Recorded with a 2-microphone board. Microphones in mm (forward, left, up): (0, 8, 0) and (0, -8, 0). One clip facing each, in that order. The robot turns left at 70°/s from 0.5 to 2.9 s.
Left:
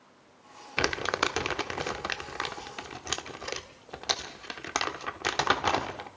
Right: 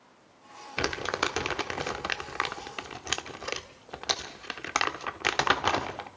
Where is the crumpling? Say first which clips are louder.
Left 2 dB; 20° left (ahead or behind), 1.0 m; by 6.1 s 25° right (ahead or behind), 1.0 m.